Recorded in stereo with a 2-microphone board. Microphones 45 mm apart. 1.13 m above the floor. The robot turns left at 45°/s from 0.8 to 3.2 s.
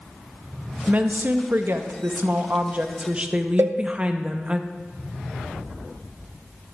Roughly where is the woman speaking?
Ahead right.